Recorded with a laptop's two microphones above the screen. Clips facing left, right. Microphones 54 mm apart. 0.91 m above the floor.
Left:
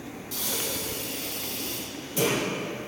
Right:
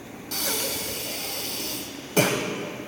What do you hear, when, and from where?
0.3 s breathing: 75° right (ahead or behind), 1.6 m